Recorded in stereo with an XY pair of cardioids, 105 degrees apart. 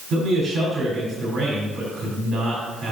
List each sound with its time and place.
0.1 s a man speaking: 60° right, 5 m